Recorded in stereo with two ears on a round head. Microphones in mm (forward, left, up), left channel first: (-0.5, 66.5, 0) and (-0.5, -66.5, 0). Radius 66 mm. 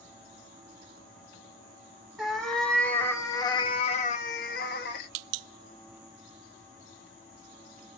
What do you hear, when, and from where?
2.2 s a cat meowing: centre (ahead or behind), 1.2 m; by 5.1 s 85° left, 0.9 m